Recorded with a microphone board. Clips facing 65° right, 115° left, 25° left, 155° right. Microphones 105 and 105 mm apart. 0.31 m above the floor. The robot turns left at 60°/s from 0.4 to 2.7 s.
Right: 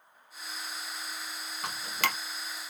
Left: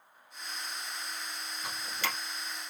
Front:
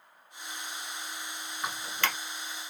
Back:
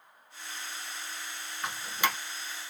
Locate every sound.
1.6 s dripping: 55° right, 0.7 m; by 2.2 s 90° right, 0.7 m